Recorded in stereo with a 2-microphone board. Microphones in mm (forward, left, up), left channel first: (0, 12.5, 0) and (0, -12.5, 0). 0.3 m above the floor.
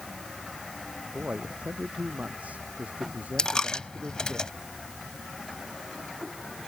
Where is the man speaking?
85° right.